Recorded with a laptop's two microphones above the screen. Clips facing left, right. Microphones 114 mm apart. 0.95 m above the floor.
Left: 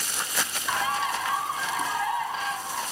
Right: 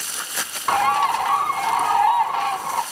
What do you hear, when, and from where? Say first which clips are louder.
0.7 s a bird: right 10 dB; 60° right (ahead or behind), 0.6 m